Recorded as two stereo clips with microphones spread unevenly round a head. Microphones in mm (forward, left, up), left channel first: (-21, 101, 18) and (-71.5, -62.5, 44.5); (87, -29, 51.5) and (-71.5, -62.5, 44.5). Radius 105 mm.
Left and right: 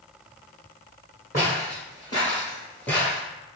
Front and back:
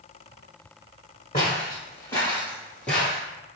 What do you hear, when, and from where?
1.3 s footsteps: 30° left, 1.7 m; by 3.2 s 60° right, 1.4 m